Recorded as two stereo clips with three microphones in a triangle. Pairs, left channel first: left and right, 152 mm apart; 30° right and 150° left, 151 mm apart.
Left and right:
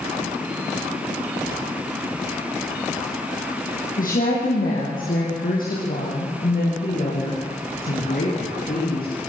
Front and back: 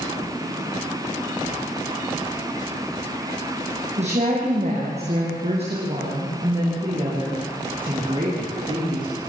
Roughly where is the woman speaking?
Left.